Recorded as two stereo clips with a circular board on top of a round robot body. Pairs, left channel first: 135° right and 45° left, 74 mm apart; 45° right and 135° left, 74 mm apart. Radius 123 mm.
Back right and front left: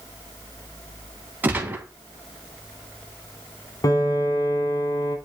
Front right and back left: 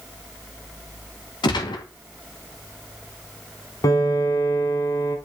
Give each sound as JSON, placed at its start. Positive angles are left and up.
{"t": 1.4, "sound": "a gunshot", "azimuth_deg": -25, "distance_m": 0.9}
{"t": 3.8, "sound": "a piano", "azimuth_deg": -90, "distance_m": 1.0}